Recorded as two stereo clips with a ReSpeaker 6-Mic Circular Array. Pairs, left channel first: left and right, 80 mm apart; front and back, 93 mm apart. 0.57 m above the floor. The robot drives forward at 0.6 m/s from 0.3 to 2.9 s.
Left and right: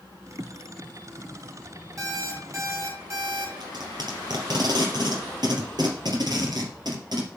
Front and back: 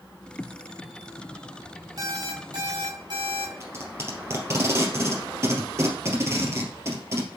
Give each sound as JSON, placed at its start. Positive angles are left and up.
{"t": 2.0, "sound": "an alarm clock", "azimuth_deg": -135, "distance_m": 2.5}
{"t": 3.6, "sound": "tape being pulled", "azimuth_deg": -120, "distance_m": 3.0}